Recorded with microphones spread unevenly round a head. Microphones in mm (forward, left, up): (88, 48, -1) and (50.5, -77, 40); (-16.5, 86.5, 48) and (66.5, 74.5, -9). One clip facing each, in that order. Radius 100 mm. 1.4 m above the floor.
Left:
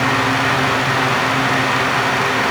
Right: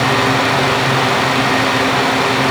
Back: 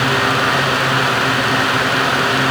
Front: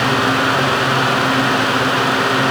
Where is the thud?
No thud in this recording.